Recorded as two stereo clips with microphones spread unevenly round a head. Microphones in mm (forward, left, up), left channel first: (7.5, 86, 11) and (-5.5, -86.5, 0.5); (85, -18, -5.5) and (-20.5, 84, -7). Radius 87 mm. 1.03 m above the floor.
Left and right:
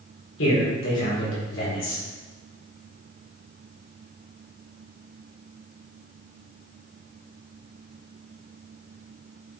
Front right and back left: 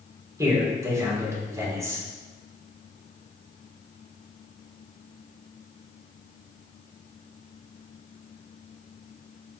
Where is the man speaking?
65° left, 4 m.